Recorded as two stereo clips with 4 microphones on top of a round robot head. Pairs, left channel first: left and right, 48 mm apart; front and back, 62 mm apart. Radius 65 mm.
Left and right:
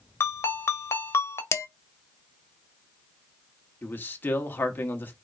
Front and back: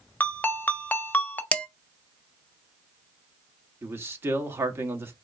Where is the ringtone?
60° left, 0.9 m.